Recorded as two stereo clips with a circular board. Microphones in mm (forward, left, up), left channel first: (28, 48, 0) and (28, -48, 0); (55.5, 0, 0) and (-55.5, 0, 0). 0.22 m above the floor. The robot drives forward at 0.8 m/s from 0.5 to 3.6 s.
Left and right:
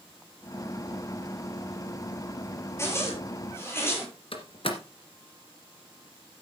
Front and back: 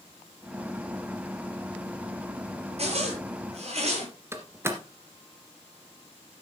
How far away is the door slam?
About 2 m.